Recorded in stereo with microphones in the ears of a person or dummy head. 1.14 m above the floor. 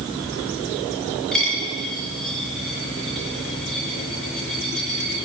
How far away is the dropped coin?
About 3 m.